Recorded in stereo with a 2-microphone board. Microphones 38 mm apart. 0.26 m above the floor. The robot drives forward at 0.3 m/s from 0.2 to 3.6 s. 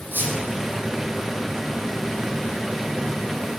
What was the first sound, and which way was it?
A squeak, 70° right (ahead or behind).